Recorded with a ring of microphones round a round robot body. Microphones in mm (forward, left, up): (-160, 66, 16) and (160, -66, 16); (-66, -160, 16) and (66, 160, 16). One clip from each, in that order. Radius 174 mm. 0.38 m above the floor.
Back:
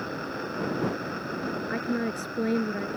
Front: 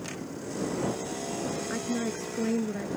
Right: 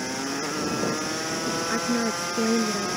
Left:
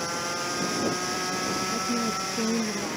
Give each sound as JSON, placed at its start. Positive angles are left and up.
{"t": 1.7, "sound": "a woman speaking", "azimuth_deg": -130}